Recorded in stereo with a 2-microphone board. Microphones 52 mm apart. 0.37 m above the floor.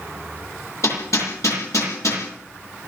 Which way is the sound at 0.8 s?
75° left (ahead or behind).